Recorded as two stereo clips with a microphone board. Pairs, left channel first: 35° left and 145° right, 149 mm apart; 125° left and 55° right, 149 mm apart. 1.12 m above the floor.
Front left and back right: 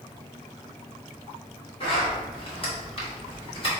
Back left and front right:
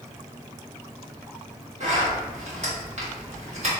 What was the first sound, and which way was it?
A zipper, 15° right.